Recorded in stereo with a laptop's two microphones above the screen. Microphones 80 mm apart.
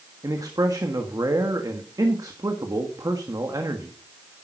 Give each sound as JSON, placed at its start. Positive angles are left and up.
{"t": 0.2, "sound": "a man speaking", "side_deg": -50, "distance_m": 1.7}